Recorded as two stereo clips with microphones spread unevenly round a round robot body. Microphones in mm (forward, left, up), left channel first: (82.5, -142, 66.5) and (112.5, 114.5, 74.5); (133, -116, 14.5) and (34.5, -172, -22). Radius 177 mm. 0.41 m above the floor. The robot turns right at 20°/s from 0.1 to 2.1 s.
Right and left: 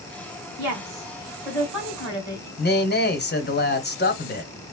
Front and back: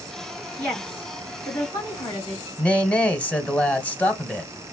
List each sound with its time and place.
0.6 s a woman speaking: 130° left, 3.5 m; by 2.5 s 160° left, 3.5 m
2.6 s a man speaking: 60° right, 1.6 m